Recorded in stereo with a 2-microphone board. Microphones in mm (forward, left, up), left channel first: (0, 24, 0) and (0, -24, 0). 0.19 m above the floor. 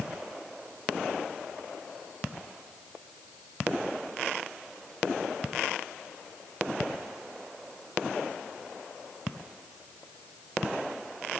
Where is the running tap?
I don't hear a running tap.